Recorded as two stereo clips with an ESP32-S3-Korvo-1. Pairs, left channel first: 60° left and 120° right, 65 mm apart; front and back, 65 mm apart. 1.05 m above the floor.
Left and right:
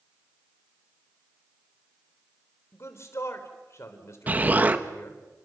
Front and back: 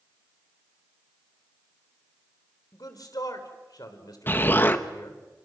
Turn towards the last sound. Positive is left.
turn(degrees=-60)